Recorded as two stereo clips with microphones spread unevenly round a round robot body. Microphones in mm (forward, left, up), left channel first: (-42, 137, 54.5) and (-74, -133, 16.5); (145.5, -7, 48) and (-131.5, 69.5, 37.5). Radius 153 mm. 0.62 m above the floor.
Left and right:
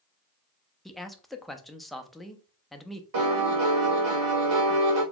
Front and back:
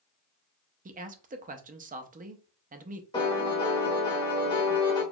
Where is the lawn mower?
I don't hear a lawn mower.